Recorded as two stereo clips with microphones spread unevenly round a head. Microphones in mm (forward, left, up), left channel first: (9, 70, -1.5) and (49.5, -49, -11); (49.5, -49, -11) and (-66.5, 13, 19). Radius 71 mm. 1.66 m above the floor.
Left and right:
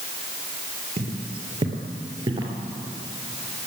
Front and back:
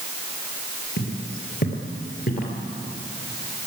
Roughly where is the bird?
No bird in this recording.